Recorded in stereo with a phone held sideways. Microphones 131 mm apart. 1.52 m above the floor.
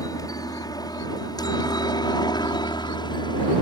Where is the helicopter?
30° left (ahead or behind); by 3.6 s 35° left (ahead or behind).